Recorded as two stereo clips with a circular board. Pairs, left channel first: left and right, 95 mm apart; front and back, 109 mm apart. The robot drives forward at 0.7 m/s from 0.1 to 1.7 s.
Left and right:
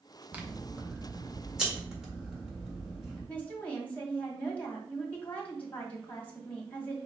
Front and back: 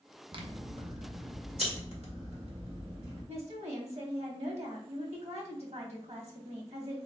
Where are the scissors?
160° right, 0.8 m; by 3.2 s 170° right, 1.6 m.